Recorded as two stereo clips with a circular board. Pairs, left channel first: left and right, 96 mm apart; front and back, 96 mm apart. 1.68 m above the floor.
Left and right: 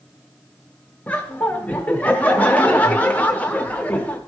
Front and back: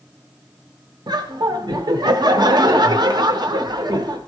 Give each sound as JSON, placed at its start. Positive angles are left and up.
{"t": 1.1, "sound": "laughter", "azimuth_deg": 160, "distance_m": 0.7}